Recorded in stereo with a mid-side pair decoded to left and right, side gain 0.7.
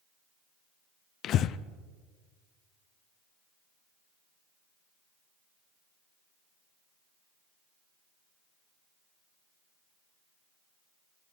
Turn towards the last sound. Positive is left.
turn(degrees=50)